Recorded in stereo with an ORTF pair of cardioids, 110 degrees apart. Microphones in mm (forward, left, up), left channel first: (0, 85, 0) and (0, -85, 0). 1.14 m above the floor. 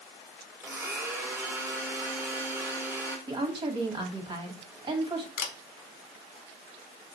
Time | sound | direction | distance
0.6 | a blender | 10° right | 1.4 m
3.3 | a woman speaking | 30° right | 1.4 m
5.4 | a camera shutter | 65° left | 0.9 m